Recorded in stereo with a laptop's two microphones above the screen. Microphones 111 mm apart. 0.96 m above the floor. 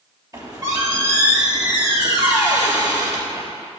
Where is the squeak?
30° right (ahead or behind), 3 m.